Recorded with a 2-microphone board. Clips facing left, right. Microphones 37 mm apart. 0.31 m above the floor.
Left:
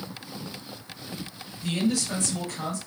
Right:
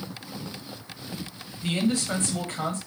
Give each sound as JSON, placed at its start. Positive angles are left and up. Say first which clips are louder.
{"t": 1.6, "sound": "a man speaking", "louder": "right 1 dB", "side_deg": -40, "distance_m": 1.2}